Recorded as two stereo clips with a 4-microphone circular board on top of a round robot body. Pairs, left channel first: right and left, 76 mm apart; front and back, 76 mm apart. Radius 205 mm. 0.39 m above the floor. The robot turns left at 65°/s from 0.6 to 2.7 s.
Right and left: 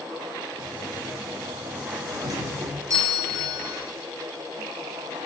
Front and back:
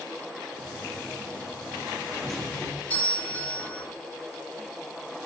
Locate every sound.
2.1 s a doorbell: 105° left, 2.5 m; by 3.8 s 65° left, 2.5 m